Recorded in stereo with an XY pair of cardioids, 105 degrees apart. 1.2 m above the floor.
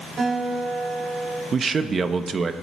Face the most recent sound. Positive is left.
turn(degrees=-45)